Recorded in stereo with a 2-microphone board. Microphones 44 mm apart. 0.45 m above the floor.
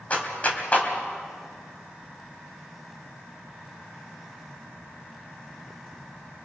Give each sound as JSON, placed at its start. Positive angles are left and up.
{"t": 0.1, "sound": "a clap", "side_deg": 35, "distance_m": 2.5}